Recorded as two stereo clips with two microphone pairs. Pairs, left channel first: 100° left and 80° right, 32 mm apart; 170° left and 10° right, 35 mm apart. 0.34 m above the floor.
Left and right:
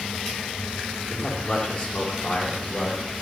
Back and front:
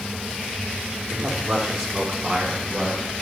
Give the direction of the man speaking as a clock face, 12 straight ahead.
10 o'clock.